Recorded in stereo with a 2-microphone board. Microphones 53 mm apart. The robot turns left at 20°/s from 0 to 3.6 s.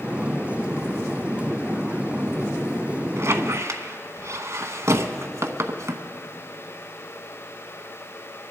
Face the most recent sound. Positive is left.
turn(degrees=-70)  # may be behind; listen again after turning